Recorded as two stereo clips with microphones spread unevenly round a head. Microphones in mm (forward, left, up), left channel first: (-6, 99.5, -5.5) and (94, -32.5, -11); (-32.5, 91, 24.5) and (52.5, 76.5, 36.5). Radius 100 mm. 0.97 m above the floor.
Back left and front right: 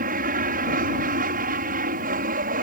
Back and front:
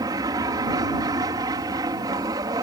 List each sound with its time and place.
0.0 s an aircraft: 55° right